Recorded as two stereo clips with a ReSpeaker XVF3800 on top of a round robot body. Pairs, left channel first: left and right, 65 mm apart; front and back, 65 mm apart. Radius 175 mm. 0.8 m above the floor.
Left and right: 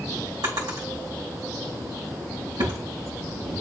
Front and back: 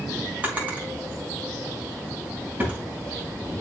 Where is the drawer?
110° right, 4 m.